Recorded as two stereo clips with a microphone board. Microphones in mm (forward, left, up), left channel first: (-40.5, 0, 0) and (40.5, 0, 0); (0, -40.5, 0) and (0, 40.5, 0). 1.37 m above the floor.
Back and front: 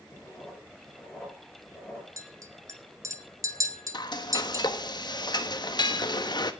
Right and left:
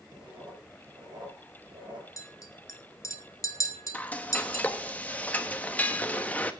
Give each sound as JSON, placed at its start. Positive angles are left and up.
{"t": 0.1, "sound": "writing", "azimuth_deg": 100, "distance_m": 7.5}
{"t": 2.2, "sound": "a clink", "azimuth_deg": -45, "distance_m": 1.6}
{"t": 3.9, "sound": "frying", "azimuth_deg": -160, "distance_m": 1.1}